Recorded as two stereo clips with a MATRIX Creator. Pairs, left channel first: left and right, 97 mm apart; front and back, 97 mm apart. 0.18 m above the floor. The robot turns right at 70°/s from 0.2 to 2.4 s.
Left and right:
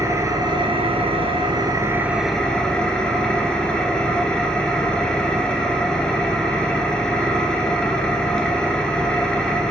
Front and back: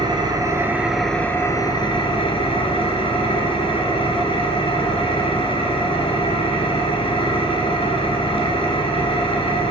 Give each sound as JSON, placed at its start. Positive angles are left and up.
{"t": 0.0, "sound": "an engine running", "azimuth_deg": -145, "distance_m": 0.9}